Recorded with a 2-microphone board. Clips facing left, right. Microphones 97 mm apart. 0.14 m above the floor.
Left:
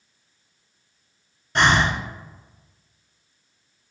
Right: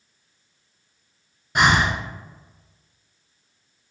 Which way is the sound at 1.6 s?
10° right (ahead or behind).